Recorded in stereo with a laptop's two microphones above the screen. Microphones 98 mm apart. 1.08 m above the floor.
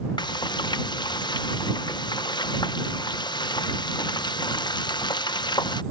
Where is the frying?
50° left (ahead or behind).